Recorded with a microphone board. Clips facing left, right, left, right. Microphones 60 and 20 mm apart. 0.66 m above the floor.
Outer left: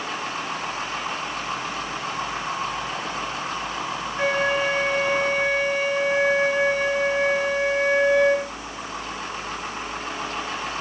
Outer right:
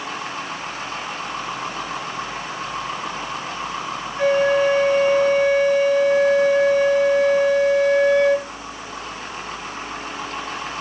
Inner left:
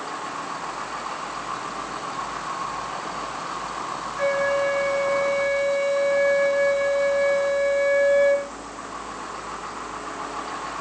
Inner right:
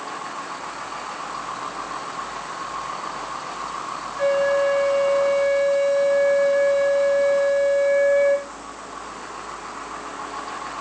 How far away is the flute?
About 4.5 m.